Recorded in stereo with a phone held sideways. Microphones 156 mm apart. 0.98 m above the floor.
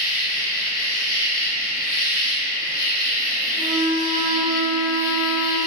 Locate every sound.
0.0 s an insect: 25° left (ahead or behind), 0.8 m
3.5 s a flute: 15° right (ahead or behind), 1.4 m